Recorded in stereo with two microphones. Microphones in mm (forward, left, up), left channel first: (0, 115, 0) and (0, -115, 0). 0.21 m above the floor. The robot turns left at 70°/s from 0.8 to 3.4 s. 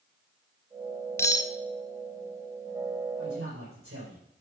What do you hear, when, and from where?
1.2 s cutlery clinking: 10° left (ahead or behind), 0.6 m; by 1.5 s 20° left (ahead or behind), 0.6 m
3.2 s a man speaking: 75° right (ahead or behind), 5 m